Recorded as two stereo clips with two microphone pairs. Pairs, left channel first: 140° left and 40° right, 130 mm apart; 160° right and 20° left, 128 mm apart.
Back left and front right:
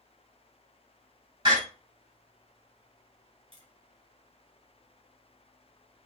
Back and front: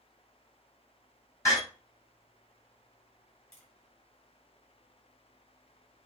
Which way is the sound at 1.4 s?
95° right.